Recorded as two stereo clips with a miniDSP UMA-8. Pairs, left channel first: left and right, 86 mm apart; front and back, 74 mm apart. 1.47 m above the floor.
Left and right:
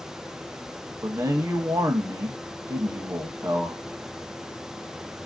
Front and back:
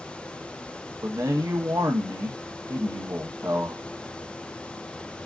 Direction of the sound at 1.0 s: 140° right.